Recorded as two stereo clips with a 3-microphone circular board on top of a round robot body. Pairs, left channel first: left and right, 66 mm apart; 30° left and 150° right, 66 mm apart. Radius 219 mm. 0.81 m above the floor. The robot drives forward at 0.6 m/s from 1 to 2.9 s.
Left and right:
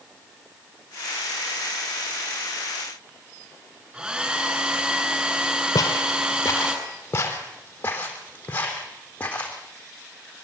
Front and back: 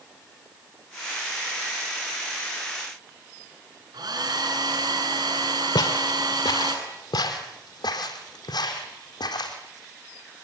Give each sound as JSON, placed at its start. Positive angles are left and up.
{"t": 3.9, "sound": "a hair dryer", "azimuth_deg": -165, "distance_m": 7.0}
{"t": 5.8, "sound": "footsteps", "azimuth_deg": 50, "distance_m": 1.7}